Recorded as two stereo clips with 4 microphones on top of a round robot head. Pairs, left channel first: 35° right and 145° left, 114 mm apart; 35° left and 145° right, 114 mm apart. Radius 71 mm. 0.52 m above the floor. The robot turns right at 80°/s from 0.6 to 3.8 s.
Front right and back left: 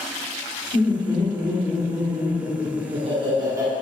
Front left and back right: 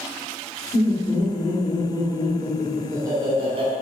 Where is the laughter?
25° right, 2 m; by 3.7 s 145° right, 2 m.